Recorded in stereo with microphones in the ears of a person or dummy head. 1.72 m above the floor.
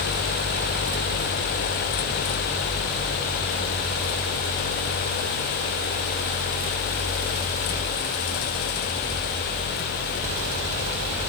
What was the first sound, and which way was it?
Only background noise.